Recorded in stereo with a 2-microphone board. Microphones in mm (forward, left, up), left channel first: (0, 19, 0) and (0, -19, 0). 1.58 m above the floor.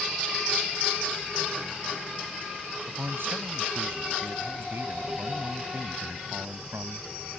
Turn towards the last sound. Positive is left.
turn(degrees=-75)  # may be behind; listen again after turning